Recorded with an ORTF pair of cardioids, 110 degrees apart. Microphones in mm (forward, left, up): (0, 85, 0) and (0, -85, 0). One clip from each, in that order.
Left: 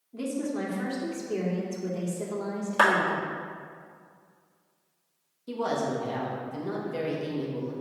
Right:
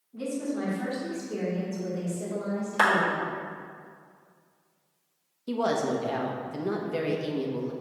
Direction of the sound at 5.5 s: 25° right.